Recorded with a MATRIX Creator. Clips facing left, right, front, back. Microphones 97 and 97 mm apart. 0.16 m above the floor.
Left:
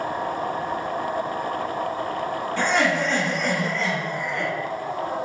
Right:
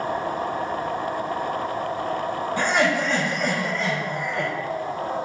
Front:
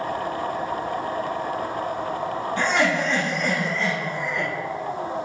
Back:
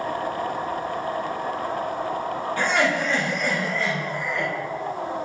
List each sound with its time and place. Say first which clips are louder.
2.6 s laughter: even, front 1 dB; 30° right, 1.2 m